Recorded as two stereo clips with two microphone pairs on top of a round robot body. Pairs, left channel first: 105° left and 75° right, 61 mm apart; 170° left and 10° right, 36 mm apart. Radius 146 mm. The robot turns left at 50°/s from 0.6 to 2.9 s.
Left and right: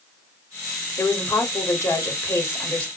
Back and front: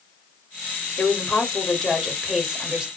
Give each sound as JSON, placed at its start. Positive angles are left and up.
{"t": 1.0, "sound": "a woman speaking", "azimuth_deg": 135, "distance_m": 1.6}